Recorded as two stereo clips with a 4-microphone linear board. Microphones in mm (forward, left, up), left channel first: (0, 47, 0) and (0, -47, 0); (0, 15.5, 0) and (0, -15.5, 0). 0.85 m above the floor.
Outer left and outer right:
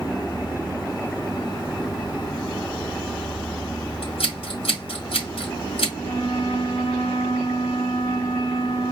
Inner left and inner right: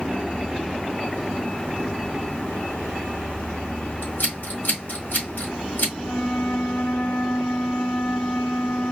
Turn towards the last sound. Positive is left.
turn(degrees=70)  # may be behind; listen again after turning